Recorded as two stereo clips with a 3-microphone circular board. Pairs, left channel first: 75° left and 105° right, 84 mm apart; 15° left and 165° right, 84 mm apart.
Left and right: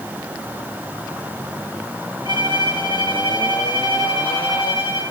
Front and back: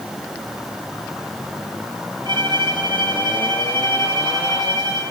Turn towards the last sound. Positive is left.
turn(degrees=-135)